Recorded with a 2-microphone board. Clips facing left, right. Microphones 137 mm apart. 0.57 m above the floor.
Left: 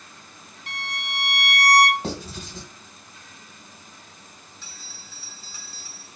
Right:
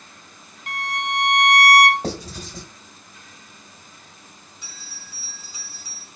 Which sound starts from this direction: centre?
A bell, at 4.6 s.